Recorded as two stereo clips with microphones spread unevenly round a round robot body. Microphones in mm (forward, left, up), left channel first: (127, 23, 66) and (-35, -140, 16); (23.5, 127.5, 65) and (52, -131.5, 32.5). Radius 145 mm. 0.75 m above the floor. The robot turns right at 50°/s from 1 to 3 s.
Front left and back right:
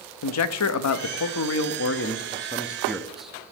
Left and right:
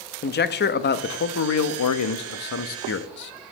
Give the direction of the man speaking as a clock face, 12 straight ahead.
11 o'clock.